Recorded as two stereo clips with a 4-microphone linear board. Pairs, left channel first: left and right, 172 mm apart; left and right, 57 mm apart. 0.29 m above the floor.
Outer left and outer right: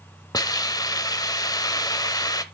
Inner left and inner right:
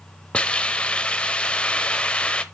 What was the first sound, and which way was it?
A hiss, 20° left (ahead or behind).